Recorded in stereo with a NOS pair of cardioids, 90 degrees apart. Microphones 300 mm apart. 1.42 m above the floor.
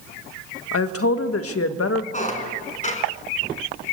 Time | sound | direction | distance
0.7 | a woman speaking | 50° left | 1.8 m
2.1 | a squeak | 25° left | 4.5 m